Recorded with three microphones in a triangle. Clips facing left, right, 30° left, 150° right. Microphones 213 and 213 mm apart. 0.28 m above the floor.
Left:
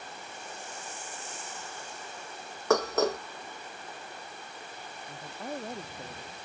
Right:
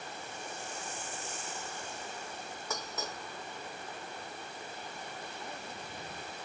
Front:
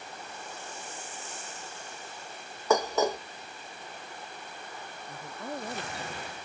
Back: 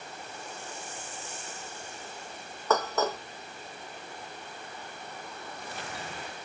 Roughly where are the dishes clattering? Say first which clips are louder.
Left 17 dB, front 2 dB; left.